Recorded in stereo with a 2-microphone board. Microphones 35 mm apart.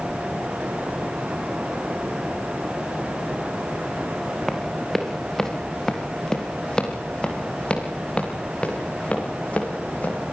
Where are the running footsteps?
Centre (ahead or behind), 4.5 m; by 10.3 s 40° left (ahead or behind), 7.5 m.